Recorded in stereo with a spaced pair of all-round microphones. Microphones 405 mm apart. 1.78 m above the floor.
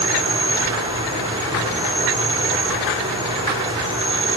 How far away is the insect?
About 4.5 m.